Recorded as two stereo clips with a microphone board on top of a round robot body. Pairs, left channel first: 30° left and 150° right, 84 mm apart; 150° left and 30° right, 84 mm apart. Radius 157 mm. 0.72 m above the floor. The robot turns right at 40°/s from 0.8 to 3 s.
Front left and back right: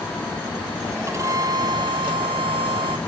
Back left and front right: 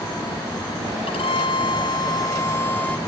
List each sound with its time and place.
1.1 s a violin: 150° left; by 3.0 s 135° right